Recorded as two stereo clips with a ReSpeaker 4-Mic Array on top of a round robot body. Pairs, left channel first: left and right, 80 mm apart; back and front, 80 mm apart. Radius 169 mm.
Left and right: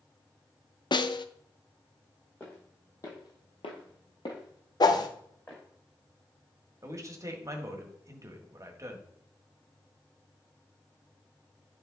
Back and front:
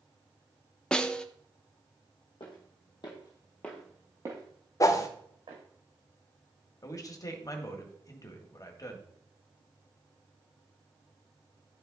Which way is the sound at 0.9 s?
100° left.